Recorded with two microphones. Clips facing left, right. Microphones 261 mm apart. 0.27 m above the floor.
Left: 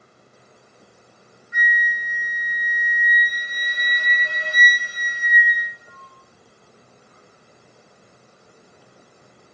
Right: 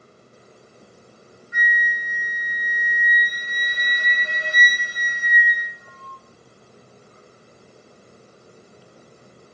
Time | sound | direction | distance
1.5 | a flute | 35° left (ahead or behind) | 1.6 m